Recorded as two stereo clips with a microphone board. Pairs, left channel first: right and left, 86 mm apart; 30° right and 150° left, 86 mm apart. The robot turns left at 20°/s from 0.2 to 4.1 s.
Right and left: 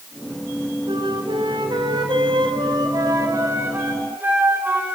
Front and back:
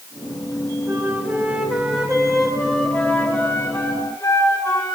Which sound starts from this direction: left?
A flute, at 0.9 s.